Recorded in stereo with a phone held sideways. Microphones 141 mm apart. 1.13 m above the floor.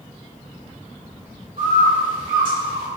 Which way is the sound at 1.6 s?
80° right.